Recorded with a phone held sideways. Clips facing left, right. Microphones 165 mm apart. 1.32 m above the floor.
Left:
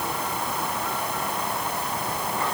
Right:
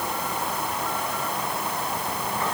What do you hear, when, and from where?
Only background noise.